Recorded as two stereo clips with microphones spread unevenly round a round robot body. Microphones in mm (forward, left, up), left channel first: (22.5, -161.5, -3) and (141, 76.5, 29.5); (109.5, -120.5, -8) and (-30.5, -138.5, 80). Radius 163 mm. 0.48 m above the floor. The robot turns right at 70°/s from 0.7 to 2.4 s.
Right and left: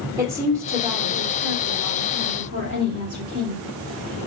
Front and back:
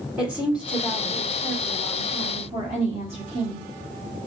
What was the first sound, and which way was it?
A woman speaking, 15° right.